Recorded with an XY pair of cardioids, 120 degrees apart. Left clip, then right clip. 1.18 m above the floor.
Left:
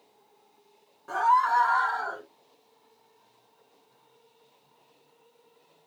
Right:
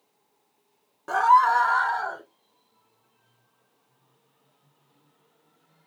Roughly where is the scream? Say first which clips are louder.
Right 4 dB; ahead right.